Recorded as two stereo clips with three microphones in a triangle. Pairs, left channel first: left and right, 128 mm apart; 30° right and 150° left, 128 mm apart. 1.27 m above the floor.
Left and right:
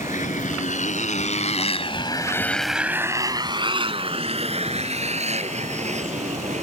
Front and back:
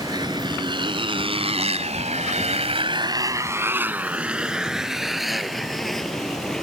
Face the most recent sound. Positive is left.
turn(degrees=-115)